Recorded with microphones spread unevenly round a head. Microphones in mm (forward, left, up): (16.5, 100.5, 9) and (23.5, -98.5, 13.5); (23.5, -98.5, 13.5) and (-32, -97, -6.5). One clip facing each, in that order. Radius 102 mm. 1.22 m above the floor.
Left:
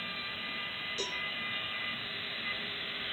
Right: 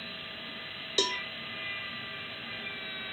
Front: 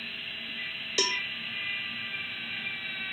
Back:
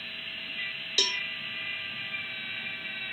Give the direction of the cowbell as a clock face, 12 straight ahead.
2 o'clock.